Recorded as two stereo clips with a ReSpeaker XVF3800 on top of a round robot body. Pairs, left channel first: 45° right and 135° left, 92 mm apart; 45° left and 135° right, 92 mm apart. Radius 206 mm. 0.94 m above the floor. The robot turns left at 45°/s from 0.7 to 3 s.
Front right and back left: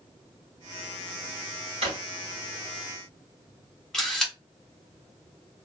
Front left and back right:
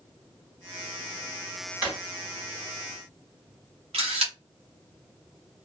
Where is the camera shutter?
130° right, 0.5 m.